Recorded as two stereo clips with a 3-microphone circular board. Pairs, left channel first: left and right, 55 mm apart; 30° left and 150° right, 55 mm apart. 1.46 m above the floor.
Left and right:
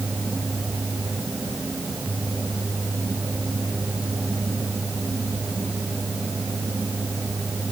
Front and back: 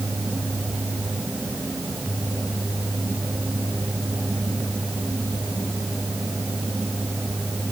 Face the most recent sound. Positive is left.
No sound to turn to.